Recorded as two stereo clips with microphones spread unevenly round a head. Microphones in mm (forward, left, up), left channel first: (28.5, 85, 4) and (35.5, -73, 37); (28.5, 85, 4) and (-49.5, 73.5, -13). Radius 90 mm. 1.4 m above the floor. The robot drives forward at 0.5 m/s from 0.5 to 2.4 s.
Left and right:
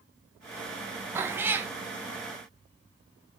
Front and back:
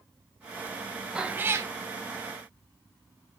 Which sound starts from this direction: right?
A cat meowing, at 1.1 s.